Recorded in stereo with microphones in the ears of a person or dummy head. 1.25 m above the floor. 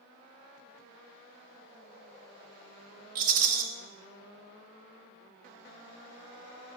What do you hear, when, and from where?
3.1 s a rattle: 50° right (ahead or behind), 0.7 m